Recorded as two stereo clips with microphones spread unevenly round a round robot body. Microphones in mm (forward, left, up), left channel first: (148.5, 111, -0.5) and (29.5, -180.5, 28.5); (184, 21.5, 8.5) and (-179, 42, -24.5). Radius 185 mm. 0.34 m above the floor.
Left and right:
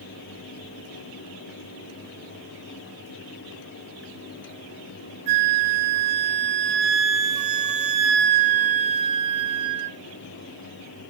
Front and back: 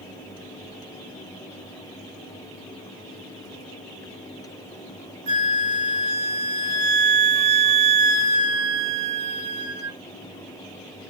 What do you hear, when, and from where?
5.3 s a flute: 150° right, 0.6 m